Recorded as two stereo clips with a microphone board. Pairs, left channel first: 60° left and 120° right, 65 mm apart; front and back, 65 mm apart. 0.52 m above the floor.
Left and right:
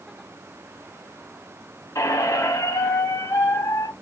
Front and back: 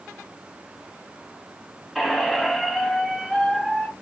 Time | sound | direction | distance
1.9 | a squeak | 90° left | 0.8 m